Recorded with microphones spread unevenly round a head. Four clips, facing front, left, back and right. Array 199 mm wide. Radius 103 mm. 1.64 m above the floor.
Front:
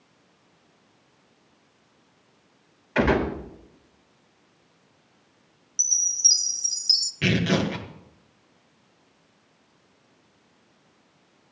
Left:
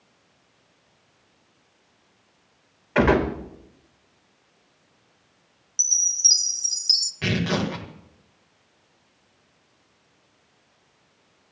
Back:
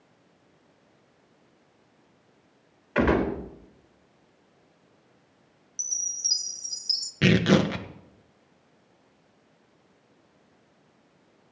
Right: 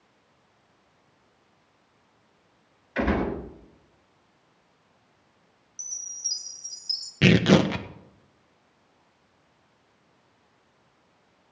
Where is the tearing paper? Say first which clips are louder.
Right 6 dB, back 3 dB; 100° right, 1.2 m.